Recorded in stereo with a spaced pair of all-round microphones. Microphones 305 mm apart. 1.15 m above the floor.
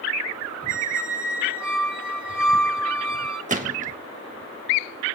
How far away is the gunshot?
About 1.5 m.